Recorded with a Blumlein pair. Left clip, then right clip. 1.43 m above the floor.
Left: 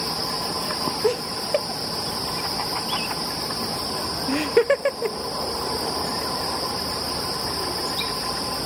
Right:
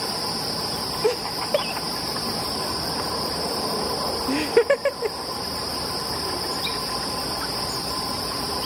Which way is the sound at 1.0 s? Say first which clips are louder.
Right 2 dB; straight ahead.